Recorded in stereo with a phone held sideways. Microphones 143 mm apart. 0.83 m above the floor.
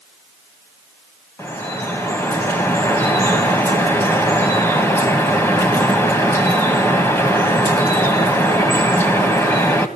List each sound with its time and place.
1.4 s dripping: 15° left (ahead or behind), 1.6 m